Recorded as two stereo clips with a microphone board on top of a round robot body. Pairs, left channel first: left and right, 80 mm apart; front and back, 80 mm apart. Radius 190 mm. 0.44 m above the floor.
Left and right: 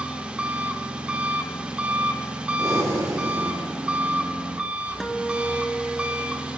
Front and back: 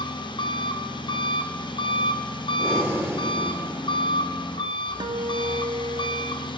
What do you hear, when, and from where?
0.0 s an engine running: 15° right, 1.0 m
2.6 s breathing: 125° right, 2.5 m
5.0 s a guitar: straight behind, 0.9 m